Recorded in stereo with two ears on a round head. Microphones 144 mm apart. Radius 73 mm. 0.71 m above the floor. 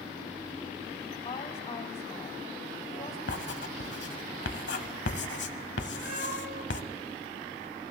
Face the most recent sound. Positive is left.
turn(degrees=-55)  # may be behind; listen again after turning